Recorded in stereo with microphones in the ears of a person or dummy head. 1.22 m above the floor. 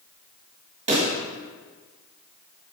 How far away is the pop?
About 1.5 m.